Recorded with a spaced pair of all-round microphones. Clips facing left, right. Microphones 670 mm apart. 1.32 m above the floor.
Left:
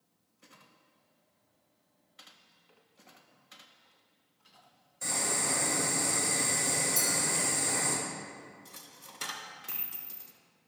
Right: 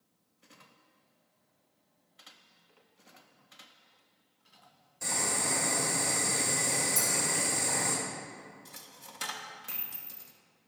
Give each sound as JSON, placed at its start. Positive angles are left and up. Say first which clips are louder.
{"t": 5.0, "sound": "boiling", "louder": "even", "side_deg": -55, "distance_m": 3.5}
{"t": 7.0, "sound": "a clink", "louder": "left 1 dB", "side_deg": -25, "distance_m": 1.7}
{"t": 8.7, "sound": "a dropped coin", "louder": "right 1 dB", "side_deg": -25, "distance_m": 0.7}